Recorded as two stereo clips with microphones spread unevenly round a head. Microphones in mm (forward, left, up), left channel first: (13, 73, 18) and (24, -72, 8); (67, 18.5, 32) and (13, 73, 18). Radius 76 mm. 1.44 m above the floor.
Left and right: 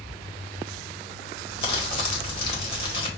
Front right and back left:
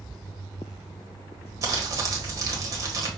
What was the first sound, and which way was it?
Crumpling, 105° left.